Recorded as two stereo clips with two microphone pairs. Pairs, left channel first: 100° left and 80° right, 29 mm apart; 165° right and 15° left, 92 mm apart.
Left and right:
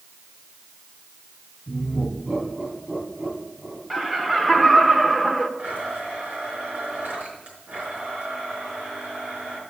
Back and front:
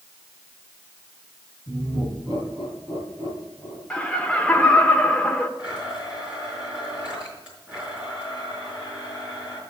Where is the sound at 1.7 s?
30° right, 6.5 m.